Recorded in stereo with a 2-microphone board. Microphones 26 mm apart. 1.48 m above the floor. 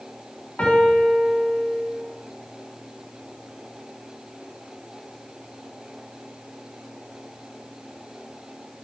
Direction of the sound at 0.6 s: 65° left (ahead or behind).